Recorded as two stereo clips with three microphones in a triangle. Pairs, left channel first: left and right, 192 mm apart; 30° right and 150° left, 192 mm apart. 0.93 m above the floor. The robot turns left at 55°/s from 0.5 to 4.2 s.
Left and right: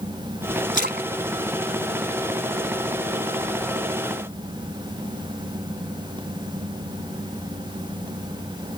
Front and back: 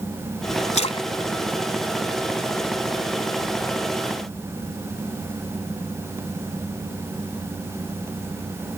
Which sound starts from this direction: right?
A splash, at 0.7 s.